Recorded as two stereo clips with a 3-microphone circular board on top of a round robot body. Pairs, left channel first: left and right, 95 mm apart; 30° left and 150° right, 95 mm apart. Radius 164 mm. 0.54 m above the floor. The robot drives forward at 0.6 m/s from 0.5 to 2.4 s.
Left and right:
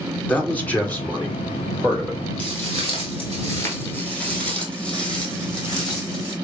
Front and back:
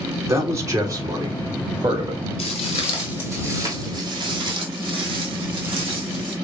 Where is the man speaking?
160° left, 1.9 m; by 2.2 s 170° left, 2.5 m.